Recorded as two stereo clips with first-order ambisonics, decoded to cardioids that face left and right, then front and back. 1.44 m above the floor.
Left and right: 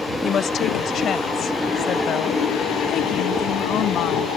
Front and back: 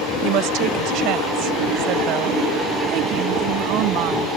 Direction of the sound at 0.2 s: 150° left.